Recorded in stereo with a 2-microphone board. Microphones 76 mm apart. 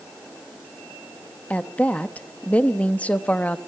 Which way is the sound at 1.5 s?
20° left (ahead or behind).